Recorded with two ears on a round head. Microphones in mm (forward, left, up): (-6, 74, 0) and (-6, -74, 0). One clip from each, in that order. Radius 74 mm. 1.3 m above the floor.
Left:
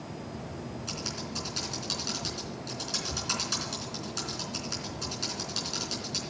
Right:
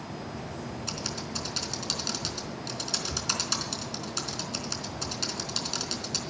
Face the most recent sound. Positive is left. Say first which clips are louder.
# right 2 dB
turn(degrees=-30)  # may be behind; listen again after turning